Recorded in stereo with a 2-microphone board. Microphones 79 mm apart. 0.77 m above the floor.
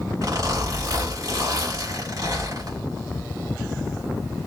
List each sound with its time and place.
0.2 s a zipper: 50° right (ahead or behind), 2.5 m